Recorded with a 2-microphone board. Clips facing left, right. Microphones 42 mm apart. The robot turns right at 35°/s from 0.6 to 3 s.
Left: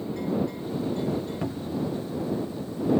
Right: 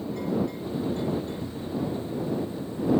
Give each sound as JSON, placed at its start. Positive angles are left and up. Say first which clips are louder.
{"t": 1.4, "sound": "a cupboard door", "louder": "left 1 dB", "side_deg": 80}